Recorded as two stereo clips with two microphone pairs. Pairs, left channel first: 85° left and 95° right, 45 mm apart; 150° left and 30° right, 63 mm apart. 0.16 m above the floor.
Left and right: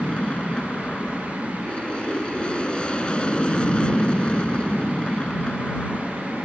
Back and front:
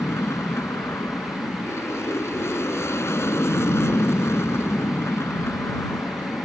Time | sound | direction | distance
0.0 | an aircraft | 140° left | ?